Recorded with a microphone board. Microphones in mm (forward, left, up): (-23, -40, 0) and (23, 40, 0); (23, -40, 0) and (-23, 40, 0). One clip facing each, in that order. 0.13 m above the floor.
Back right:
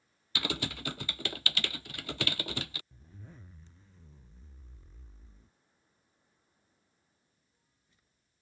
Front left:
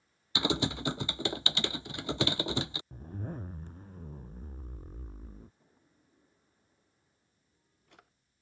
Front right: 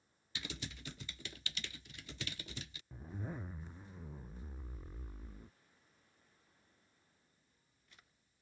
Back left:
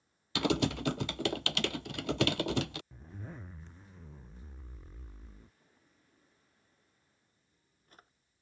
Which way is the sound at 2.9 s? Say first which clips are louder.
Front left 13 dB, front right 2 dB; 25° left.